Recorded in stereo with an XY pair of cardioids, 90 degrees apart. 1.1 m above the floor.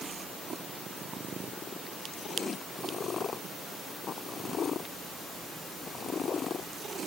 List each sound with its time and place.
Only background noise.